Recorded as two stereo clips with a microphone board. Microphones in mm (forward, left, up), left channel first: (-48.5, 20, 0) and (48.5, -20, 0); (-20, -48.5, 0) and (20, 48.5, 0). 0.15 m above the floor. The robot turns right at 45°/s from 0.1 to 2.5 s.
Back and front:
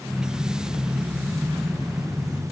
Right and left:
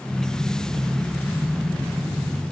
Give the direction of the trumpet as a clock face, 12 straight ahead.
I don't hear a trumpet.